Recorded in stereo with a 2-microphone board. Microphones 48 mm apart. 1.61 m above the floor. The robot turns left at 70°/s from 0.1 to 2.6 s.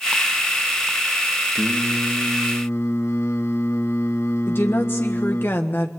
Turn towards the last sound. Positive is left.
turn(degrees=50)  # may be behind; listen again after turning